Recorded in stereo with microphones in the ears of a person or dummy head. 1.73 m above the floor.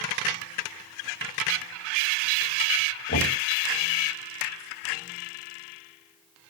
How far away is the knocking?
About 10 m.